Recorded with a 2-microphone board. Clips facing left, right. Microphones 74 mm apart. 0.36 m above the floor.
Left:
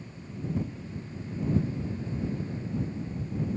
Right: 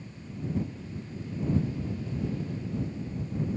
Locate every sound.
Only background noise.